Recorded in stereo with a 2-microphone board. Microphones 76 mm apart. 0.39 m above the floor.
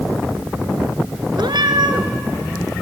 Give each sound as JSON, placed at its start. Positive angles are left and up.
{"t": 1.4, "sound": "a cat meowing", "side_deg": -80, "distance_m": 1.5}